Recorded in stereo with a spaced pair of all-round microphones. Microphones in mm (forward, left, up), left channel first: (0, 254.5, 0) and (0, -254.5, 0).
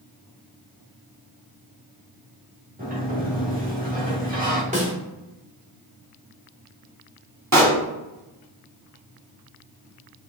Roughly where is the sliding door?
Centre.